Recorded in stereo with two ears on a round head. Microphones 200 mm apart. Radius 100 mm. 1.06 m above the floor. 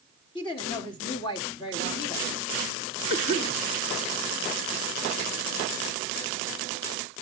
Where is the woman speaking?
25° left (ahead or behind), 1.8 m.